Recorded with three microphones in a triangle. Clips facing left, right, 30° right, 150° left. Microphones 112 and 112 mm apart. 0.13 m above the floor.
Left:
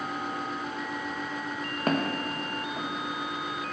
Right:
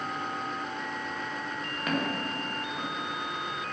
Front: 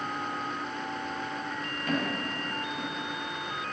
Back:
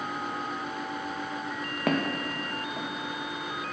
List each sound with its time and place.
1.9 s footsteps: 145° left, 1.5 m; by 2.9 s 150° left, 2.5 m